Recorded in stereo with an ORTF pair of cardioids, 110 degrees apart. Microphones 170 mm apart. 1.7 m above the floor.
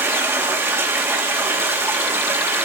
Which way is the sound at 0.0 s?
15° right.